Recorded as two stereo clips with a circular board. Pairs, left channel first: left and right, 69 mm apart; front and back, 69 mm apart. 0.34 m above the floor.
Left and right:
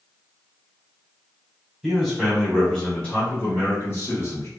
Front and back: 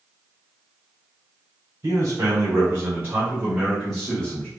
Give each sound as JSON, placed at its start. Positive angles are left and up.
{"t": 1.8, "sound": "a man speaking", "azimuth_deg": -175, "distance_m": 2.0}